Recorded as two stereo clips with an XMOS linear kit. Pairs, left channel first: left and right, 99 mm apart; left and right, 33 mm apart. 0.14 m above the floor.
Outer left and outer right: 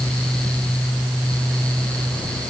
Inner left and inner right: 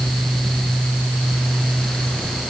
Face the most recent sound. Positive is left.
No sound to turn to.